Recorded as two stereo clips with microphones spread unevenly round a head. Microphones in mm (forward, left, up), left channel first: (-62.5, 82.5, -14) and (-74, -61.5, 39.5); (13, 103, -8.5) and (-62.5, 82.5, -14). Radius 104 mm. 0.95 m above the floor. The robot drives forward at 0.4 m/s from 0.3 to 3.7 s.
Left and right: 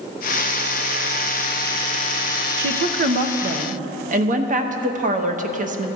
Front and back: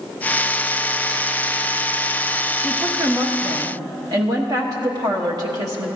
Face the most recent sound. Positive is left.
turn(degrees=-135)